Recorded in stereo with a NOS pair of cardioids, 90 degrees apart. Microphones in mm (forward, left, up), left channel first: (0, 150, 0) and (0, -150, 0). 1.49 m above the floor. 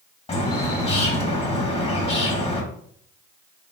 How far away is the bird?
About 1.5 m.